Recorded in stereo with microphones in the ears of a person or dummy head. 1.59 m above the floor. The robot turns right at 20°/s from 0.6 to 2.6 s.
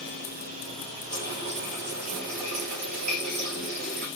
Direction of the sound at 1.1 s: 150° right.